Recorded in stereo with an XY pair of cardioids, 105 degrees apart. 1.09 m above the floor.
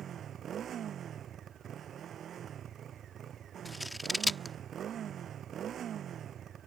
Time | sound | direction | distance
0.0 | a motorcycle | 55° right | ?
3.6 | scissors | 5° left | ?